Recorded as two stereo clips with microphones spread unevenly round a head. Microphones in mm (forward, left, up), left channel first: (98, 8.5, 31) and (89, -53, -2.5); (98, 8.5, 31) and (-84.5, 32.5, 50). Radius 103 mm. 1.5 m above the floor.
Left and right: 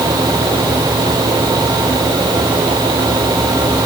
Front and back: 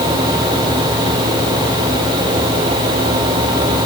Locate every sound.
Only background noise.